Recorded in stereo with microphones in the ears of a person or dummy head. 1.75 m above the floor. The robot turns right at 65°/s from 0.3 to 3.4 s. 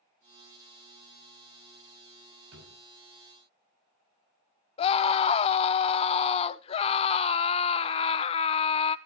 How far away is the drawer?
About 6.5 m.